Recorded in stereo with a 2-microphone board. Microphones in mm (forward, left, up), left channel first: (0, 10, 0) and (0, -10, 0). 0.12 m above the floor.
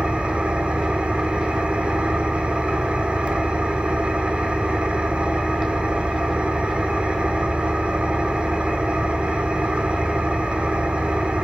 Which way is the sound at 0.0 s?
70° right (ahead or behind).